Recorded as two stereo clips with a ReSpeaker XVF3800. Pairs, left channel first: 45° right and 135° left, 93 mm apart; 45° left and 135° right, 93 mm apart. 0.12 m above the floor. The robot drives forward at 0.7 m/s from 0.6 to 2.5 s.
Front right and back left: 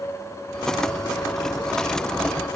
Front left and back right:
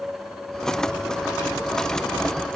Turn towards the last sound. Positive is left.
No sound to turn to.